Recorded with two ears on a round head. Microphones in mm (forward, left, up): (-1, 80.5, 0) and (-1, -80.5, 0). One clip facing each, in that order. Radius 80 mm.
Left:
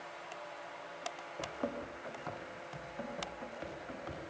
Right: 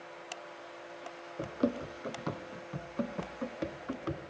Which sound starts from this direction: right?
Running footsteps, at 1.4 s.